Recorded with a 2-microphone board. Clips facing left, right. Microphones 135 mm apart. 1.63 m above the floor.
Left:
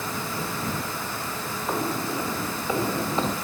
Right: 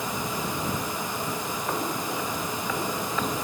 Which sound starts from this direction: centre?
Footsteps, at 1.7 s.